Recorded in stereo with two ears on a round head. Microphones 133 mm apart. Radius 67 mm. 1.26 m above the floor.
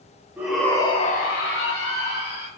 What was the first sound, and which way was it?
A shout, 10° right (ahead or behind).